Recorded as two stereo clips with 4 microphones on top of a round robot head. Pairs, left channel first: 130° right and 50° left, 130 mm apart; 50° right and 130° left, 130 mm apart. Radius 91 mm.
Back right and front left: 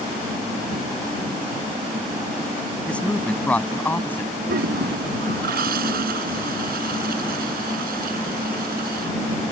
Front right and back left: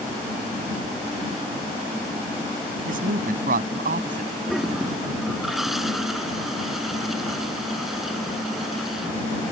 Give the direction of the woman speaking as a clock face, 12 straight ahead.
7 o'clock.